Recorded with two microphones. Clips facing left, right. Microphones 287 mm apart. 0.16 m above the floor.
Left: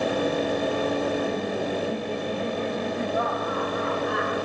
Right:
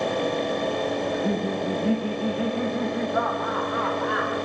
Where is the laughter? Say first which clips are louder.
Right 1 dB; 70° right (ahead or behind), 6.5 m; by 4.3 s 80° right, 10 m.